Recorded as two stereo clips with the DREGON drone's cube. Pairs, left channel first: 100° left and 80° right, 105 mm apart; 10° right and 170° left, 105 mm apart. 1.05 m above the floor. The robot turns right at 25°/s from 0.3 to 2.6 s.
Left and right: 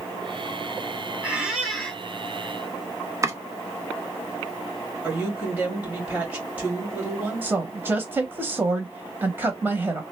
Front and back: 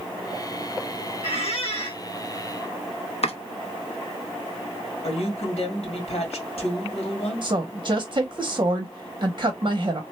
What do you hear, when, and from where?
1.2 s a squeak: straight ahead, 1.1 m; by 2.0 s 20° left, 1.1 m
3.2 s chopping: 15° right, 0.7 m
5.0 s a woman speaking: 5° right, 2 m
7.4 s a woman speaking: 145° right, 0.7 m